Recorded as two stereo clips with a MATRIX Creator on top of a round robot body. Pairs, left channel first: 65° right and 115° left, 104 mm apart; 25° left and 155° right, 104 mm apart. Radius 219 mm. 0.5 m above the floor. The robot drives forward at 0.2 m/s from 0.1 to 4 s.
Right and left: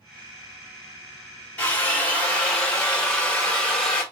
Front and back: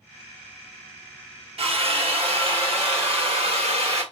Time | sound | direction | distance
1.6 | a drill | 145° right | 1.7 m